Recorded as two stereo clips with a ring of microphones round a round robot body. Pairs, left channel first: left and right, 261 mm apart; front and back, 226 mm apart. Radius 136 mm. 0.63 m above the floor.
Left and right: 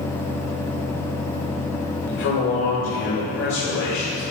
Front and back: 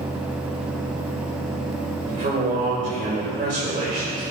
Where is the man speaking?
125° left, 3 m.